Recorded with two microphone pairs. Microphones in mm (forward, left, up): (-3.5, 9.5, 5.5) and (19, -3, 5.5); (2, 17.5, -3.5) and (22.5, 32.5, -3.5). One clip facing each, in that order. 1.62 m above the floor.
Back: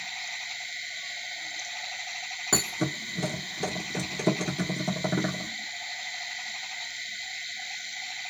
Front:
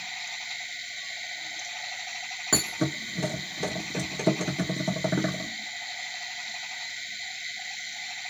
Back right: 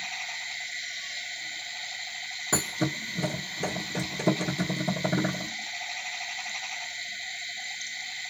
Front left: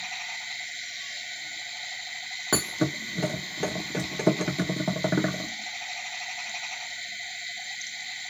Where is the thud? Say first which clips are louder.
Front 1 dB, front left 2 dB; 60° left, 1.6 m.